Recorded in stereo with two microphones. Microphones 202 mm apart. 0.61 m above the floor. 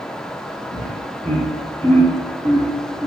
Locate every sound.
0.7 s laughter: 45° right (ahead or behind), 2.5 m; by 3.1 s 15° right (ahead or behind), 1.9 m